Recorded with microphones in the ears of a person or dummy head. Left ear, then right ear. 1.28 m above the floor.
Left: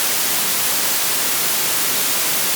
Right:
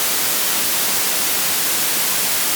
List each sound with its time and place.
Only background noise.